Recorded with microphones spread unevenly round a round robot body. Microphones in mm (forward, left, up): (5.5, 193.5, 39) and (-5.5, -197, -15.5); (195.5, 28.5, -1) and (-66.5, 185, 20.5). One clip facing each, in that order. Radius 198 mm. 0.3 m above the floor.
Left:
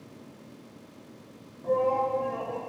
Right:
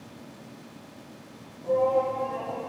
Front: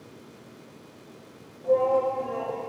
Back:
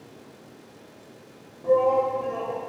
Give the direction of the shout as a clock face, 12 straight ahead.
8 o'clock.